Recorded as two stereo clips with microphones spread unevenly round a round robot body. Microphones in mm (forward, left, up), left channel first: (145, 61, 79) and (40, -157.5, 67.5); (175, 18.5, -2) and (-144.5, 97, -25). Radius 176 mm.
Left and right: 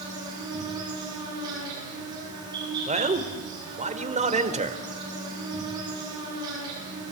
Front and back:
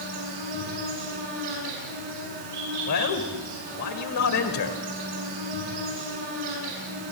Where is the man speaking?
60° right, 2 m.